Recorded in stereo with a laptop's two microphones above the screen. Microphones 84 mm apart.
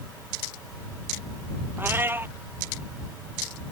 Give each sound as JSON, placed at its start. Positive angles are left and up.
{"t": 1.8, "sound": "a cat meowing", "side_deg": -25}